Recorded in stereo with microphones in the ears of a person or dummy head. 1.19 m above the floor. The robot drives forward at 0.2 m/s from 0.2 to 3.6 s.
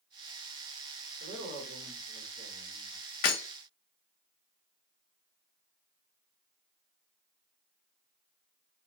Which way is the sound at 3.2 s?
50° left (ahead or behind).